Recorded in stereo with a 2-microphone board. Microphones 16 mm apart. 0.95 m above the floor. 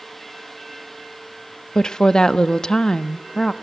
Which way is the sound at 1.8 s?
50° left (ahead or behind).